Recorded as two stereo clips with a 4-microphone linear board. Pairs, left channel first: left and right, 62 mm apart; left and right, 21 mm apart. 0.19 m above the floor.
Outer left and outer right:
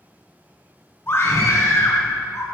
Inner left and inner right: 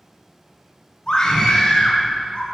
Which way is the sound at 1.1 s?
40° left (ahead or behind).